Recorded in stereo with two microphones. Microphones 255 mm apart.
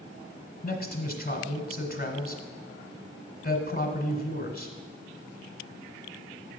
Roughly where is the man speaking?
Left.